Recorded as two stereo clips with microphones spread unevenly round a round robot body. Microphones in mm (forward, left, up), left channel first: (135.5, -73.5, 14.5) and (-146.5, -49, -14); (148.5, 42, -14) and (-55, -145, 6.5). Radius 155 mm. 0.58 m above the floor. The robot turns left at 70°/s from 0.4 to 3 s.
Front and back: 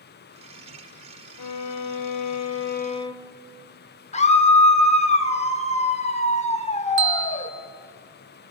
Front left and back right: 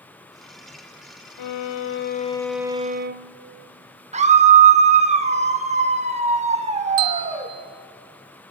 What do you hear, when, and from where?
1.4 s a violin: 35° left, 0.7 m; by 3.3 s 80° right, 0.7 m
4.1 s a scream: 70° right, 1.3 m
7.0 s a bell: 135° right, 0.9 m